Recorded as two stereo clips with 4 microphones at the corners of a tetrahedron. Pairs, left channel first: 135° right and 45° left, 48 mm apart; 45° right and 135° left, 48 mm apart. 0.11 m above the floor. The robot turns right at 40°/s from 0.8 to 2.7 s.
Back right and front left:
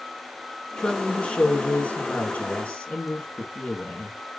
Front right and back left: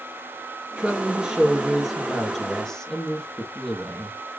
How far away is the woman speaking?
About 1.3 m.